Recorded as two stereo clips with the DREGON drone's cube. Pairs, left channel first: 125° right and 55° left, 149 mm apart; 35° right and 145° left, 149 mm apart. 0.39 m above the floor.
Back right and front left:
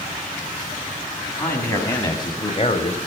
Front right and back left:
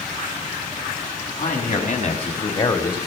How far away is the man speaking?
About 3 m.